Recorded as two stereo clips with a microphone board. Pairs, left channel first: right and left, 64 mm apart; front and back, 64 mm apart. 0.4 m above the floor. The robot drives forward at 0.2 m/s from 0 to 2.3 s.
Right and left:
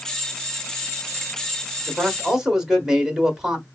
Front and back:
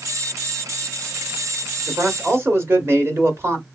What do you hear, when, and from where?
1.9 s a man speaking: 165° left, 1.0 m; by 3.6 s 170° left, 1.1 m